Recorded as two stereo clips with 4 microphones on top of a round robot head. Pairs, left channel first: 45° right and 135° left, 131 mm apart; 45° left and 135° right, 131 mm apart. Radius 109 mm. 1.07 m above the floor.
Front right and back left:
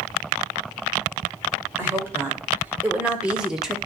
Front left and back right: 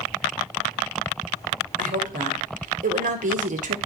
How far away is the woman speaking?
About 2.5 m.